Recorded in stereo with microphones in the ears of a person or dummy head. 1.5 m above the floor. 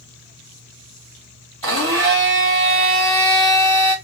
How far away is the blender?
About 0.6 m.